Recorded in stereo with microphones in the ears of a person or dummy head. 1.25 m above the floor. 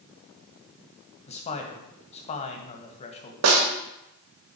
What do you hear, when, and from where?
1.3 s a man speaking: 35° left (ahead or behind), 1.7 m
3.4 s a snare drum: 70° right (ahead or behind), 2.0 m